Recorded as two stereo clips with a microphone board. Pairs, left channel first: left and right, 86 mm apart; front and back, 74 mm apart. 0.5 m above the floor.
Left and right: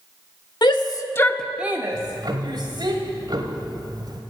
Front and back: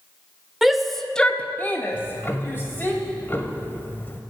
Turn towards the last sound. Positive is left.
turn(degrees=-60)